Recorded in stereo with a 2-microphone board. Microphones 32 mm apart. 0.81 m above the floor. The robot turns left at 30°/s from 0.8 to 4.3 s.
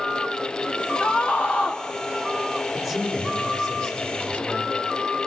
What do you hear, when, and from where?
1.0 s a scream: 70° left (ahead or behind), 1.6 m; by 1.8 s 50° left (ahead or behind), 1.6 m
2.7 s a man speaking: 175° left, 10 m; by 4.7 s 125° left, 10 m